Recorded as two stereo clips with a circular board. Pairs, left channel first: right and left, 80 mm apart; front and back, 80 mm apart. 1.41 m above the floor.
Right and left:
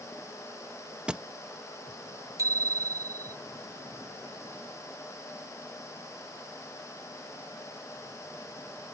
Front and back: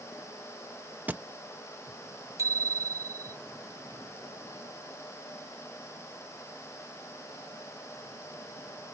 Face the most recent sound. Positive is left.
turn(degrees=135)